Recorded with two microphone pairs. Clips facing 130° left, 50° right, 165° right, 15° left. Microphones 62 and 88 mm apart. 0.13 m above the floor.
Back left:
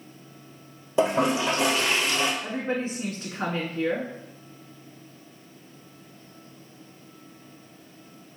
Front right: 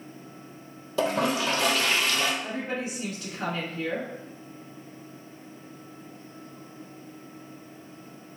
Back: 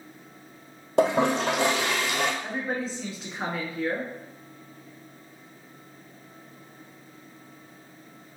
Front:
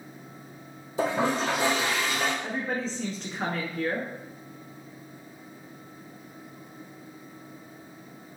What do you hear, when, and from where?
1.0 s a toilet flushing: 160° right, 0.9 m
2.4 s a woman speaking: 120° left, 1.3 m